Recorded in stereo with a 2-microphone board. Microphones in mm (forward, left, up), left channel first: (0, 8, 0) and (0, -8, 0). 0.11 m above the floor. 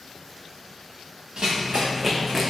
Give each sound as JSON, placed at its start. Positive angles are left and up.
{"t": 1.4, "sound": "running footsteps", "side_deg": -70, "distance_m": 0.8}